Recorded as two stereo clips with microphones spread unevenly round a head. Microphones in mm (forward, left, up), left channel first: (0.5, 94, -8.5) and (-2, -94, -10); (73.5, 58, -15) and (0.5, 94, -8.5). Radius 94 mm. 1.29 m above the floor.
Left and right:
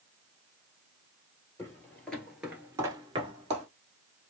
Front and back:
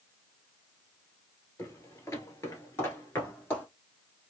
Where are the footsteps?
20° left, 1.8 m; by 3.7 s 85° right, 1.5 m.